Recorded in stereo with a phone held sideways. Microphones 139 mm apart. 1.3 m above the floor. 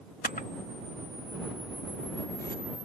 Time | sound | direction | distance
0.2 | a camera shutter | 80° left | ?